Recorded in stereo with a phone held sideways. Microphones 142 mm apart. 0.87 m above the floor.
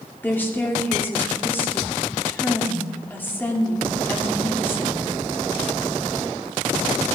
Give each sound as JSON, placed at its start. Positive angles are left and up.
{"t": 0.2, "sound": "a woman speaking", "side_deg": 15, "distance_m": 2.0}